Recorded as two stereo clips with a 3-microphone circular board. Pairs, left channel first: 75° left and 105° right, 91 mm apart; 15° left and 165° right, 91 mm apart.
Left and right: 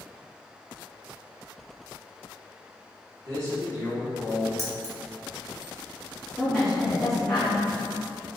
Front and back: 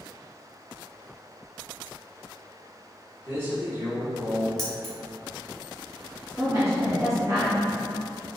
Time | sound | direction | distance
3.2 | a man speaking | 110° right | 1.6 m
4.6 | keys jangling | 65° right | 1.0 m
6.4 | a woman speaking | 160° left | 1.8 m